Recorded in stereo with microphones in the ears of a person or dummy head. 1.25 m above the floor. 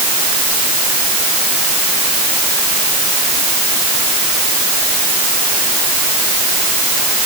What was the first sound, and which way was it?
Only background noise.